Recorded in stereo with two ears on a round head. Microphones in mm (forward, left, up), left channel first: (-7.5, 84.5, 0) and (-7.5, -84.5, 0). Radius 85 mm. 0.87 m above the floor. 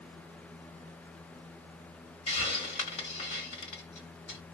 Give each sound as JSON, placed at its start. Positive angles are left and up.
{"t": 2.3, "sound": "a hiss", "side_deg": 35, "distance_m": 2.5}